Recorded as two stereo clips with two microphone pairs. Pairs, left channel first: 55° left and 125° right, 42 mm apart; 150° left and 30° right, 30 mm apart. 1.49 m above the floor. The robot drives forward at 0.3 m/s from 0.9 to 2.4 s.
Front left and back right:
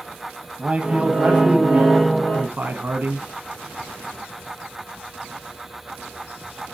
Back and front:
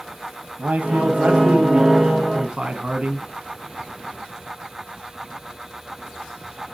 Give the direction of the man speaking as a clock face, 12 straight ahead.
2 o'clock.